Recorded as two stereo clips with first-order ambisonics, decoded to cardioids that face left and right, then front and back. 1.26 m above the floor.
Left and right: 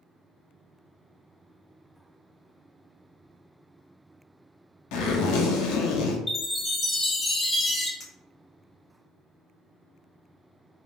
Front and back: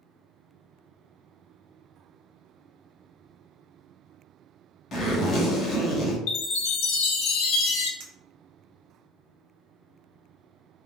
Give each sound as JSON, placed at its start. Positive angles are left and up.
{"t": 4.9, "sound": "a zipper", "azimuth_deg": 65, "distance_m": 0.8}
{"t": 6.3, "sound": "a chime", "azimuth_deg": 5, "distance_m": 0.5}
{"t": 8.0, "sound": "a clink", "azimuth_deg": 165, "distance_m": 1.0}